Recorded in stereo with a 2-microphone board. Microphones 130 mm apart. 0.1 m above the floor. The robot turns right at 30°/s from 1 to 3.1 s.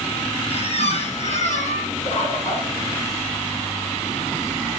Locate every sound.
0.5 s a squeak: 55° left (ahead or behind), 1.1 m; by 1.9 s 75° left (ahead or behind), 1.1 m
2.0 s a bird: 60° left (ahead or behind), 3.5 m; by 2.7 s 55° left (ahead or behind), 3.5 m